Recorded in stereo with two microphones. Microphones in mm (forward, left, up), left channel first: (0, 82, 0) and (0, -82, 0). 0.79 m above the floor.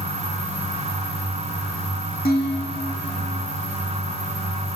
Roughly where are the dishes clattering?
Left.